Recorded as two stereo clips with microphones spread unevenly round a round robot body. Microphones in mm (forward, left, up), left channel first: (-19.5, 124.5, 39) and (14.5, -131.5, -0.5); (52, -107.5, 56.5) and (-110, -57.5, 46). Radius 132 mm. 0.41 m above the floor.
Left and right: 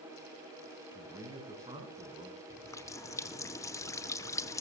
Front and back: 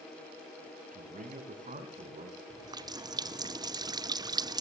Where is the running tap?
Straight behind, 0.7 m.